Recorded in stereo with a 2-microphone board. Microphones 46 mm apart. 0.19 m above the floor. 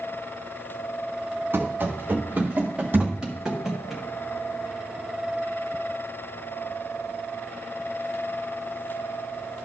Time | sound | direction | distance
1.5 | running footsteps | 50° right (ahead or behind) | 3 m
2.9 | a thud | 50° right (ahead or behind) | 3 m